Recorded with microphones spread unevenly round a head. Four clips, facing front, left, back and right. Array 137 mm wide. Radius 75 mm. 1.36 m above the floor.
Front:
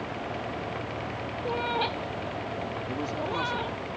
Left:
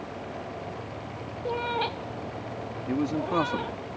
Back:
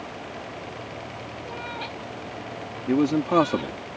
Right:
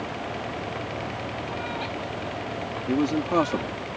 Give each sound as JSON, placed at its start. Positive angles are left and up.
{"t": 1.4, "sound": "a cat meowing", "azimuth_deg": 50}
{"t": 2.9, "sound": "a man speaking", "azimuth_deg": -165}